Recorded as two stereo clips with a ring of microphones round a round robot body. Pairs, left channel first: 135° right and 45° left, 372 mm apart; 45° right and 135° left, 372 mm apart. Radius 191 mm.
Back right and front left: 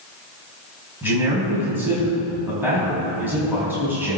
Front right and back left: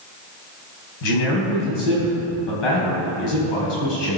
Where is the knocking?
I don't hear knocking.